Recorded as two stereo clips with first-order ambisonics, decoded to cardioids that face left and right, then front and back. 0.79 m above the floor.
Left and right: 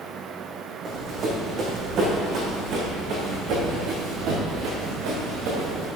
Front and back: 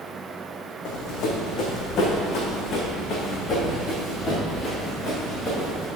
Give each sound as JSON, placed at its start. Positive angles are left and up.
{"t": 0.8, "sound": "running footsteps", "azimuth_deg": -30, "distance_m": 2.5}